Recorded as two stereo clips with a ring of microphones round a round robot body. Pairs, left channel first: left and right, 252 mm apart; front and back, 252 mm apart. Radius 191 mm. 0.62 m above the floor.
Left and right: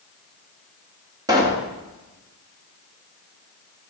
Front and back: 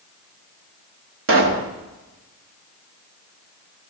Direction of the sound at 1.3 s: 165° right.